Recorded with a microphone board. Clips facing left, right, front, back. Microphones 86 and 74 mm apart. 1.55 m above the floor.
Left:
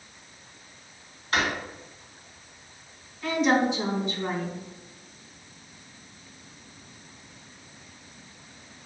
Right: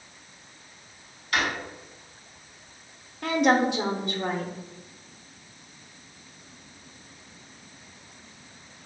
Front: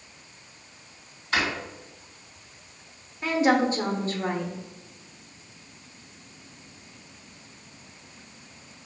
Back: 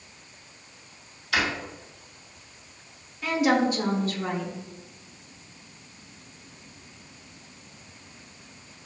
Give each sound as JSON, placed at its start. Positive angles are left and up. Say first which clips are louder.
{"t": 1.3, "sound": "a drawer", "louder": "left 1 dB, even", "azimuth_deg": 40, "distance_m": 1.8}
{"t": 3.2, "sound": "a woman speaking", "louder": "right 1 dB, front 1 dB", "azimuth_deg": -60, "distance_m": 0.8}